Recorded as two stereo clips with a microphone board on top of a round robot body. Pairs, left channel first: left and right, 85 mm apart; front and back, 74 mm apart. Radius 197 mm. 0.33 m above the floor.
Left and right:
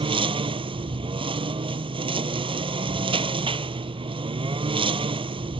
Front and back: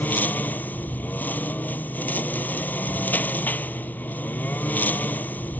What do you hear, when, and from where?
0.0 s a lawn mower: 70° right